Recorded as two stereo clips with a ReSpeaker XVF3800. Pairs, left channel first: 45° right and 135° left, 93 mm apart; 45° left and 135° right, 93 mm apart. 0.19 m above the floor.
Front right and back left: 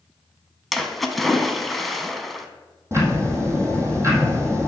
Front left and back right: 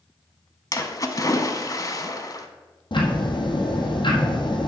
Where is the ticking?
75° left, 1.7 m.